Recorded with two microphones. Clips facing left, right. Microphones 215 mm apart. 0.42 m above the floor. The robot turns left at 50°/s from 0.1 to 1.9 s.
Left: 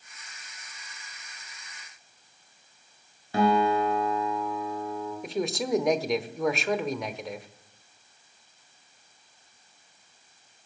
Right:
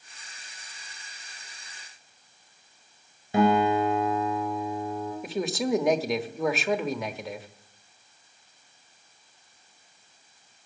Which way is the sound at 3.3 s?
20° right (ahead or behind).